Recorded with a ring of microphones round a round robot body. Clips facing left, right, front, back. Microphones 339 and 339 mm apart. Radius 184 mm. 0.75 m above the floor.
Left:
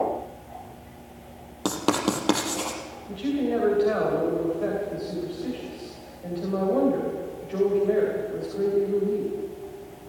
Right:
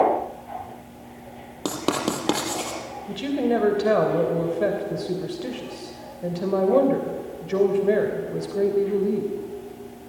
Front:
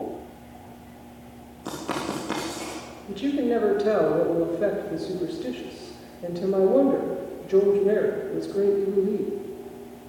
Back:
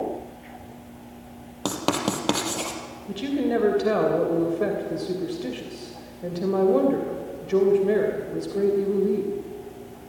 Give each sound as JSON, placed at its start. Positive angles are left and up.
{"t": 1.6, "sound": "writing", "azimuth_deg": 175, "distance_m": 3.5}
{"t": 3.1, "sound": "a woman speaking", "azimuth_deg": -105, "distance_m": 3.0}